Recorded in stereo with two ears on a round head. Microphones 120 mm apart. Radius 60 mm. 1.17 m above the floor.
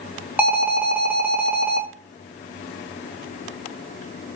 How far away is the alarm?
About 1.0 m.